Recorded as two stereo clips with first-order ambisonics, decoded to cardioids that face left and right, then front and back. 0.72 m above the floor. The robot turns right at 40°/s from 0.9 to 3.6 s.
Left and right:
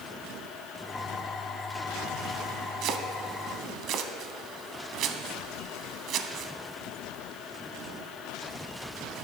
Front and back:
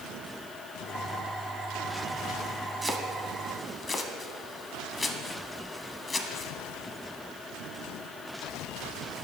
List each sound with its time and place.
2.8 s chopping: 100° right, 0.7 m; by 6.5 s 70° right, 0.7 m